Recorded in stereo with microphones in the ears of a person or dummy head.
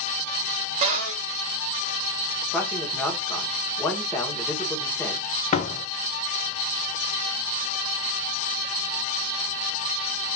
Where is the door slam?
40° left (ahead or behind), 0.7 m.